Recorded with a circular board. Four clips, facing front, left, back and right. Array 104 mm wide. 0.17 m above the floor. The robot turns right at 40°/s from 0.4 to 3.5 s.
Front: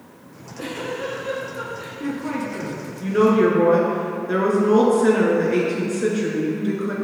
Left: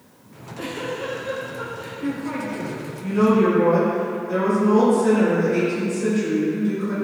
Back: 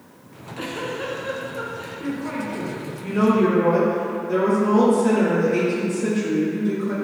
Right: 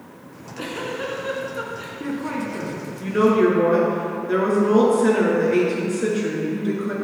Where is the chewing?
No chewing in this recording.